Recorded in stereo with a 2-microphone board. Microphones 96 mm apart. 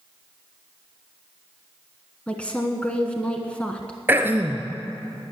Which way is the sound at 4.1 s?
20° right (ahead or behind).